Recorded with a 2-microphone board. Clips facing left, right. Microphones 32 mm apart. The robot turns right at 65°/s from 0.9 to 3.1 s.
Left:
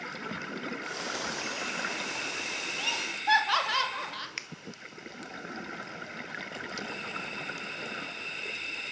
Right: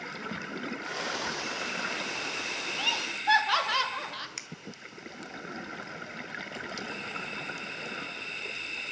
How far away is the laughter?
About 2.5 m.